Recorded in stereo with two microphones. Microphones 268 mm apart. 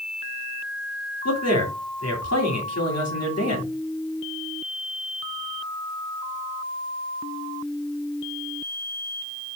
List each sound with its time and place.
1.2 s a man speaking: 65° left (ahead or behind), 3 m